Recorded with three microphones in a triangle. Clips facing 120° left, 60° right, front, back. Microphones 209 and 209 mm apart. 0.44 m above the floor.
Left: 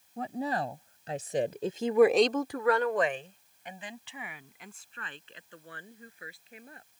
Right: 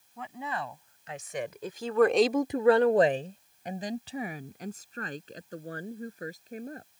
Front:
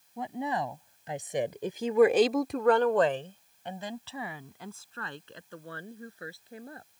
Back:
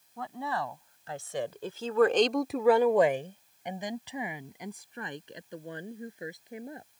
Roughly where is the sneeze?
No sneeze in this recording.